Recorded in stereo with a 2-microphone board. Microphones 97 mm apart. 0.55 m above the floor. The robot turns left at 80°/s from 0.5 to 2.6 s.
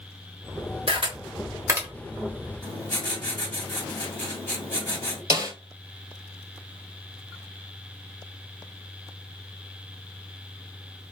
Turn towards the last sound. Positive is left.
turn(degrees=-30)  # may be behind; listen again after turning